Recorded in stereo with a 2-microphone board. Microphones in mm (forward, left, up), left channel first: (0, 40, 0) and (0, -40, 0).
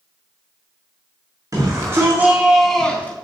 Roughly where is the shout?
Right.